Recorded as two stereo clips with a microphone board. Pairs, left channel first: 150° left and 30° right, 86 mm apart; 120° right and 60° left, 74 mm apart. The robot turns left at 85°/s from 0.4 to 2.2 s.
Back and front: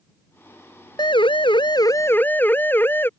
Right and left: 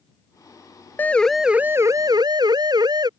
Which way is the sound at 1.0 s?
Straight behind.